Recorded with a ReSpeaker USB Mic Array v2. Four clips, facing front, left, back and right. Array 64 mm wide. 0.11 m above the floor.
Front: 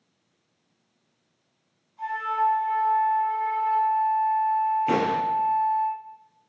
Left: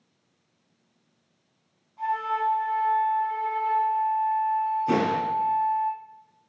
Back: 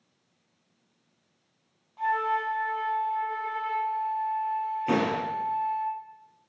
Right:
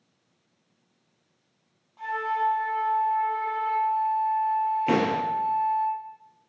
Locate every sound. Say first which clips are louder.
2.0 s a flute: left 1 dB, front 1 dB; 155° right, 2.0 m
4.9 s a door slam: even, front 3 dB; 80° right, 1.6 m